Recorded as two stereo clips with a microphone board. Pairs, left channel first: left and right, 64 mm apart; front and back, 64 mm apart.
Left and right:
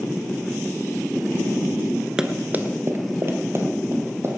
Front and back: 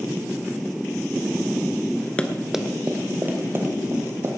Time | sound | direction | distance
2.2 | running footsteps | 30° right | 1.1 m